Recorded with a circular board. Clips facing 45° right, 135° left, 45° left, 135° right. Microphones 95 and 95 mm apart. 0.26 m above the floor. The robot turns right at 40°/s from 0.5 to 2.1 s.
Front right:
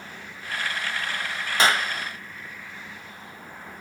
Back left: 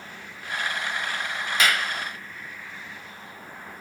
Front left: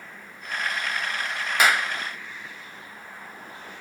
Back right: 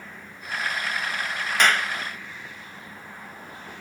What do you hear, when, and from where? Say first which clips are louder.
1.6 s a clap: front right 3 dB, even; 35° right, 0.8 m; by 1.9 s 20° right, 0.8 m